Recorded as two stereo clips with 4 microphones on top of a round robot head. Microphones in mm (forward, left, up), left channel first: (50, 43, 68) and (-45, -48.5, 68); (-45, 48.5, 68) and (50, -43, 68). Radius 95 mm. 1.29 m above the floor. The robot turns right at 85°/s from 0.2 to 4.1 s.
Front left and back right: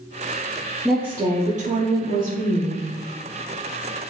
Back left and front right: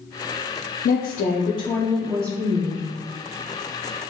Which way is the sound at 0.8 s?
130° left.